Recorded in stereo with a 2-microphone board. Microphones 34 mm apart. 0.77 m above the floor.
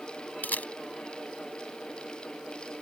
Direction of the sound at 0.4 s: 60° left (ahead or behind).